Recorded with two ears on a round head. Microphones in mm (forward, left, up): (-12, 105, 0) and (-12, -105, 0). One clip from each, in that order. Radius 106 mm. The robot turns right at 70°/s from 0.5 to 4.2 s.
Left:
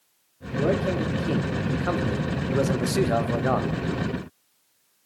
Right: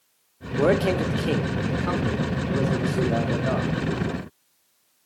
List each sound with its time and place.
0.6 s a man speaking: 80° right, 0.6 m; by 3.7 s 140° left, 0.6 m